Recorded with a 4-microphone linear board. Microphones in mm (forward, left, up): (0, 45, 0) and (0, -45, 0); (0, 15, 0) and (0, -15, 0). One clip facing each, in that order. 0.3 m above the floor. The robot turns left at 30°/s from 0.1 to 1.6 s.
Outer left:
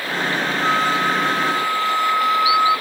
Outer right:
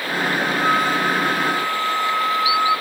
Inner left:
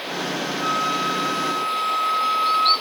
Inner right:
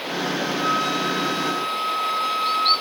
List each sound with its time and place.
0.6 s a flute: 15° left, 1.2 m; by 2.7 s 15° right, 1.2 m